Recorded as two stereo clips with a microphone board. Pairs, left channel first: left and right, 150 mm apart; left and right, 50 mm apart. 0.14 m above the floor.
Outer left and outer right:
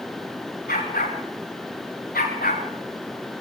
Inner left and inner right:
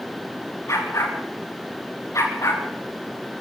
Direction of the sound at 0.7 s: 85° left.